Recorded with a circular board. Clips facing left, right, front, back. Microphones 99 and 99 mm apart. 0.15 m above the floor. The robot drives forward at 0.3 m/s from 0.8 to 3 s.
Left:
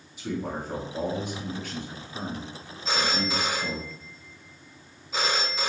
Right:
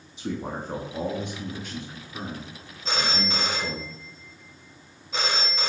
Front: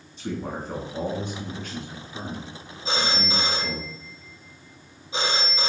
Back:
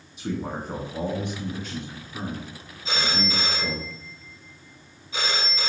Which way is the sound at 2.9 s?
5° left.